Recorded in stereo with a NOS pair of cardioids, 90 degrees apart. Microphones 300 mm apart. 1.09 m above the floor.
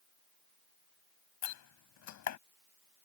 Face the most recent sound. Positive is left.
turn(degrees=70)